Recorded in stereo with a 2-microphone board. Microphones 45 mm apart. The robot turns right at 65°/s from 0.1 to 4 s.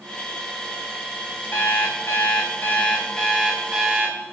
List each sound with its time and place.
1.5 s an alarm clock: 60° left, 5 m; by 4.1 s 135° right, 5 m